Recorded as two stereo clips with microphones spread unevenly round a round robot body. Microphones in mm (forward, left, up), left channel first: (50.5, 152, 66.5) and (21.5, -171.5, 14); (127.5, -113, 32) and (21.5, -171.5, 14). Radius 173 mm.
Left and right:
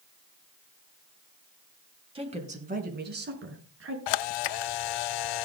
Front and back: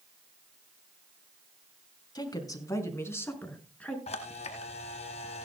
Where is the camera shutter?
85° left, 0.8 m.